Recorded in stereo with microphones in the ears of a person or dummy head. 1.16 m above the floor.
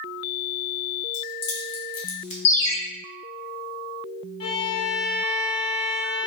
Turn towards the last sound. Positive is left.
turn(degrees=30)  # may be behind; listen again after turning